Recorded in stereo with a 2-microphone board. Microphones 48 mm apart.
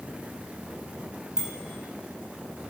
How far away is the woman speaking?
No woman speaking in this recording.